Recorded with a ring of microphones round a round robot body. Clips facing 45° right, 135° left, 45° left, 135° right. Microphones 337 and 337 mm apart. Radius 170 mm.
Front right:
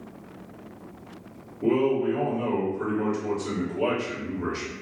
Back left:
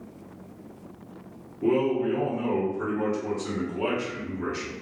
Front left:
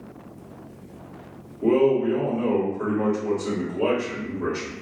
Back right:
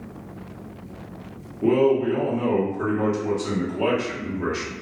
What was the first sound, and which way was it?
A man speaking, 175° left.